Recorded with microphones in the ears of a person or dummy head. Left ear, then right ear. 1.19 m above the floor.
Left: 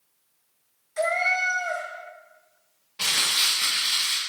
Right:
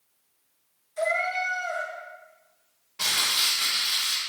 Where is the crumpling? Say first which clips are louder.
Left 1 dB; centre (ahead or behind), 0.8 m.